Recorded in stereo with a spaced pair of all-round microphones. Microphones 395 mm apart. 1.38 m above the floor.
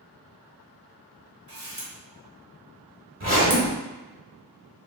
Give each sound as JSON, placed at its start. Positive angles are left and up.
{"t": 1.5, "sound": "a camera shutter", "side_deg": -35, "distance_m": 1.3}
{"t": 3.2, "sound": "a zipper", "side_deg": -30, "distance_m": 1.3}